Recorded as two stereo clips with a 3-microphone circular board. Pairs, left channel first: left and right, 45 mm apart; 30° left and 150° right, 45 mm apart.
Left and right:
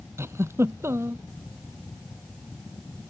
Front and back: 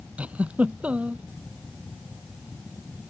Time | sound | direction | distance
0.2 | a giggle | 90° right | ?